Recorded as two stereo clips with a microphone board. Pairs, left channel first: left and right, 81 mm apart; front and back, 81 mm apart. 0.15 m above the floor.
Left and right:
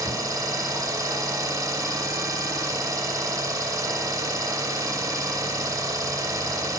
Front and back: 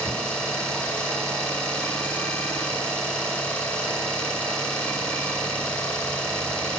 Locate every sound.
0.0 s an engine running: 70° right, 0.8 m